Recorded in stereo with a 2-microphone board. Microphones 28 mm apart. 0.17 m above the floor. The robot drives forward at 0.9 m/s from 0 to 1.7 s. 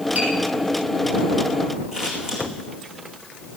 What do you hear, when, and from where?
0.1 s tapping: 55° right (ahead or behind), 7.5 m; by 0.3 s 60° right (ahead or behind), 7.5 m
1.9 s scissors: 30° right (ahead or behind), 8 m